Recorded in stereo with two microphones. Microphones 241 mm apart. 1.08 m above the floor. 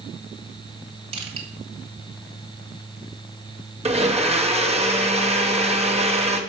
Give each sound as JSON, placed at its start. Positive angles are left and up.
{"t": 1.1, "sound": "crushing", "side_deg": -25, "distance_m": 1.7}
{"t": 3.9, "sound": "a blender", "side_deg": -25, "distance_m": 1.0}